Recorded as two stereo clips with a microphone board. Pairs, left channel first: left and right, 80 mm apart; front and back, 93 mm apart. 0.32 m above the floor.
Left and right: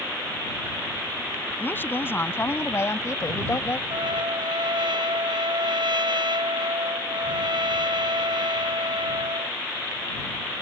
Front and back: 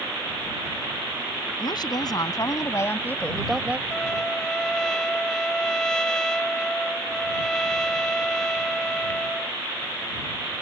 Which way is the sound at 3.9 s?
85° right.